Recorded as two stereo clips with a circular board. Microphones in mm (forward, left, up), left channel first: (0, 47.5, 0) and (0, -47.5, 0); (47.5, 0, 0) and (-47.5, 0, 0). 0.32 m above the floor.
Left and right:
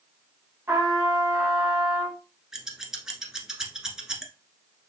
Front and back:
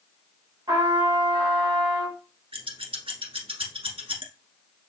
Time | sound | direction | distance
0.7 | a trumpet | 150° right | 1.8 m
2.5 | scissors | 175° right | 1.3 m